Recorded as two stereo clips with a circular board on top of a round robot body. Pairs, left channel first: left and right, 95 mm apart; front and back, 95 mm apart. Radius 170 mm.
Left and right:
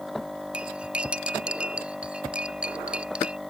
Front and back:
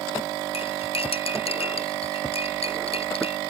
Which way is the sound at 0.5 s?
10° right.